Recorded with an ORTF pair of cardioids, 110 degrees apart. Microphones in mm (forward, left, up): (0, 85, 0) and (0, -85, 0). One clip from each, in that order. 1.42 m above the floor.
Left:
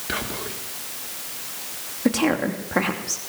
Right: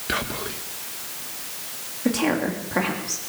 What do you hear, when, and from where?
0.1 s whispering: 15° right, 1.9 m
2.0 s a woman speaking: 25° left, 2.5 m